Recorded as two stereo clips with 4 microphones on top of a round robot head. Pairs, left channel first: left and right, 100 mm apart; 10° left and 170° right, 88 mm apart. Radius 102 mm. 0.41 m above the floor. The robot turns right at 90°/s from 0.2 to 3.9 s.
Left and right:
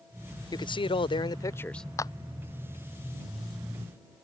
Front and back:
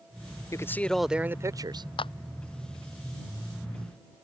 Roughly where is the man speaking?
Ahead left.